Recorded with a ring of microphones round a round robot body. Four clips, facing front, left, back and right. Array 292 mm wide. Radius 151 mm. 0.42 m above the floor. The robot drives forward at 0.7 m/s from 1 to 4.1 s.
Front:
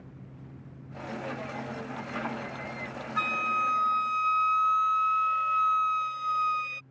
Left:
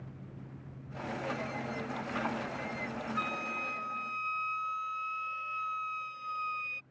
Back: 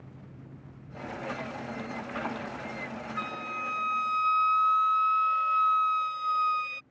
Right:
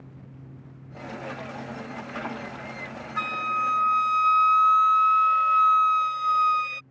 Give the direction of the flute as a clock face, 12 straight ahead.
2 o'clock.